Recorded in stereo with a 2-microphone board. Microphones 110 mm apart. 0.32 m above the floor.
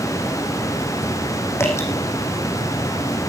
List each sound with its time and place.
1.6 s dripping: 25° left (ahead or behind), 5 m